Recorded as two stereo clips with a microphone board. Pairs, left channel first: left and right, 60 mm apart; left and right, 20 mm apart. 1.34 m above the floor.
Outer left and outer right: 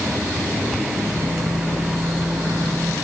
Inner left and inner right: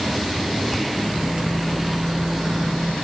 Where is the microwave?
55° right (ahead or behind), 5.5 m.